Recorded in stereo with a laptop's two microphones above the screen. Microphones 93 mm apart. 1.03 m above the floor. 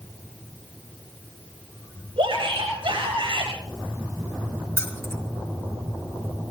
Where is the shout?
75° right (ahead or behind), 5.5 m.